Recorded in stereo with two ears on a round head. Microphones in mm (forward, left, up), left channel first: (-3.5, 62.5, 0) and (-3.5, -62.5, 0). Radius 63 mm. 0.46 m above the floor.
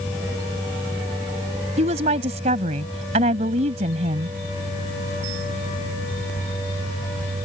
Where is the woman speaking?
55° right (ahead or behind).